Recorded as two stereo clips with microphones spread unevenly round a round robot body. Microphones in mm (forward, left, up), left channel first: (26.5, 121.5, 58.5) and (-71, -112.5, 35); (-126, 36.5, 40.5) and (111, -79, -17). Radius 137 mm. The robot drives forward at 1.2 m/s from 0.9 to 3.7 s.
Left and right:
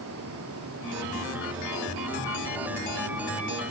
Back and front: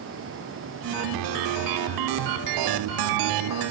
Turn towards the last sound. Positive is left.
No sound to turn to.